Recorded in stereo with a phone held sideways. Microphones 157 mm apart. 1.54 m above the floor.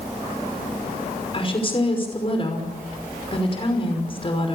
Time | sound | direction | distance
1.3 | a woman speaking | 35° left (ahead or behind) | 5.5 m